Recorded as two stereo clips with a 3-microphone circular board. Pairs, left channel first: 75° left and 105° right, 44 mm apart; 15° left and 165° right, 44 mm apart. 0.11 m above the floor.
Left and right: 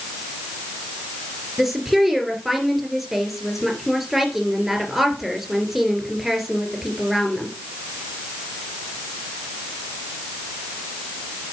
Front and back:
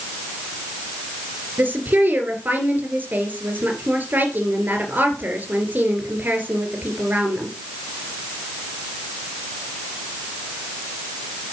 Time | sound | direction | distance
1.6 | a woman speaking | 170° left | 2.5 m